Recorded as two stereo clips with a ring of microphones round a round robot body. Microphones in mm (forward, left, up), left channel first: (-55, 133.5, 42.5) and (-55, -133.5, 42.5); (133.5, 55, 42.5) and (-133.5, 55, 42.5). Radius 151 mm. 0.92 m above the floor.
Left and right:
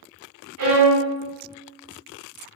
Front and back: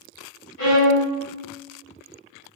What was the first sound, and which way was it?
A violin, 50° right.